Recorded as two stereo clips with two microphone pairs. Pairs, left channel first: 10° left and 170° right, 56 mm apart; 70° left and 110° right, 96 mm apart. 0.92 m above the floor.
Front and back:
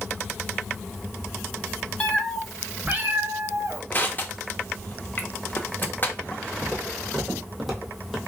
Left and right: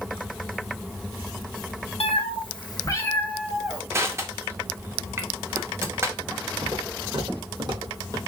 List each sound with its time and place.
2.0 s a cat meowing: 80° left, 0.7 m; by 3.8 s 165° left, 0.9 m
3.9 s crushing: 45° right, 0.6 m
6.6 s footsteps: 85° right, 2 m; by 8.2 s 80° right, 1.3 m